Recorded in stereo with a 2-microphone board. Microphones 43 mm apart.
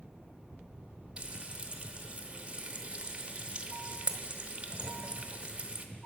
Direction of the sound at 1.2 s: 25° right (ahead or behind).